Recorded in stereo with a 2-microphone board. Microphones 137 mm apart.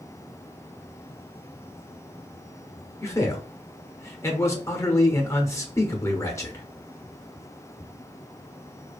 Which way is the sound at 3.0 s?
20° left (ahead or behind).